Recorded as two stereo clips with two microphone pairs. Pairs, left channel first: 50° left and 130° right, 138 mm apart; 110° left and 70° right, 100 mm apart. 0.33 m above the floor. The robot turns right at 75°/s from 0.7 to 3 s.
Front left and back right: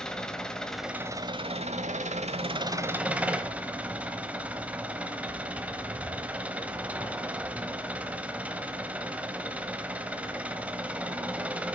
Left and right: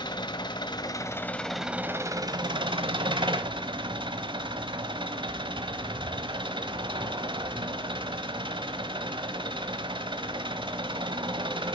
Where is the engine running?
135° left, 0.8 m; by 11.8 s 50° right, 0.8 m.